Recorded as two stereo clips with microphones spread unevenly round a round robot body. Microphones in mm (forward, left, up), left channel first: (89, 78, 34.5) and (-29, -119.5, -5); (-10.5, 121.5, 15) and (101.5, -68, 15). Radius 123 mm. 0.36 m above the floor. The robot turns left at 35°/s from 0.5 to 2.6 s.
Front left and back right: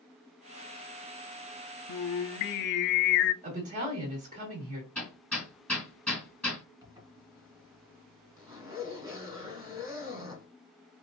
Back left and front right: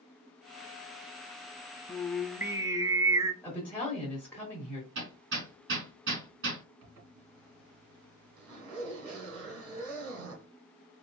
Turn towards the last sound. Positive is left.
turn(degrees=-45)